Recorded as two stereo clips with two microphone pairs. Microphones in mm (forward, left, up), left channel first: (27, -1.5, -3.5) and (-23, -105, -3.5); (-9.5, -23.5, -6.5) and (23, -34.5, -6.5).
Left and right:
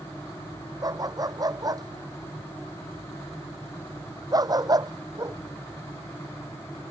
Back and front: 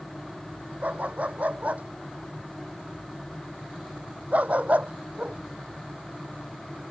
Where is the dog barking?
60° right.